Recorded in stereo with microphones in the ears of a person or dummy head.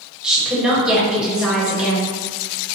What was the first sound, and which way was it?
A woman speaking, 5° right (ahead or behind).